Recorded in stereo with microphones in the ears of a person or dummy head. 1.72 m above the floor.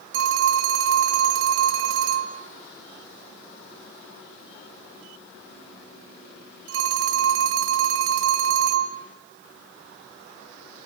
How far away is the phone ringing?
About 1.4 m.